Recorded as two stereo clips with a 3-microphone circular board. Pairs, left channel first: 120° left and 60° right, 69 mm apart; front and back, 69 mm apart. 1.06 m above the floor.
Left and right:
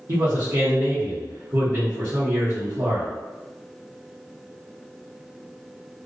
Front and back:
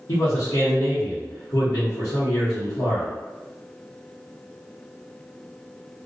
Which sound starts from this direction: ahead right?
A man speaking, at 0.1 s.